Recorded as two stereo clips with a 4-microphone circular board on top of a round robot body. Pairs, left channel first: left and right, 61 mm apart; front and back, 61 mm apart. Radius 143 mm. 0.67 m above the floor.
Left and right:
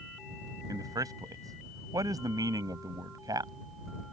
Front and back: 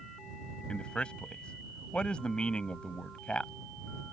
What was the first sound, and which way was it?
A man speaking, 75° right.